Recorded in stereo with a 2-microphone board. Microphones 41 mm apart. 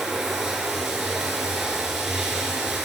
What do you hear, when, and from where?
0.0 s running water: 15° right (ahead or behind), 4.5 m